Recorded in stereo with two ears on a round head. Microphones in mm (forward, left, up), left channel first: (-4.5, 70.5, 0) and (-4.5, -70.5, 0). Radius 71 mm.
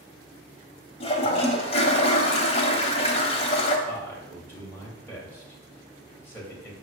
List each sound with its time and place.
1.0 s a toilet flushing: 35° left (ahead or behind), 1.1 m
3.9 s a man speaking: 15° left (ahead or behind), 3 m